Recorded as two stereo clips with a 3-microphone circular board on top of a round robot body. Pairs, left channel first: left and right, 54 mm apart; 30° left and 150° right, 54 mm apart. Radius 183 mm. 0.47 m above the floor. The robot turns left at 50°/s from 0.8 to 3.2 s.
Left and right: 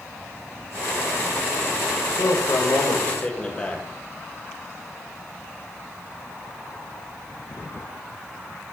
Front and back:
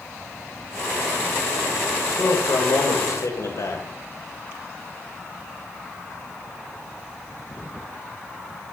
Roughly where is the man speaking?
Left.